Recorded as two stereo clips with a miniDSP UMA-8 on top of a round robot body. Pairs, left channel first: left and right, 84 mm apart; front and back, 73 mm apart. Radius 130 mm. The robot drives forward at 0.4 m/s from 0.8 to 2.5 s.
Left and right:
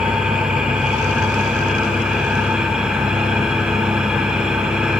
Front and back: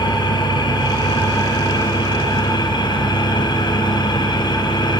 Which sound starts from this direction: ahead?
An engine running, at 0.0 s.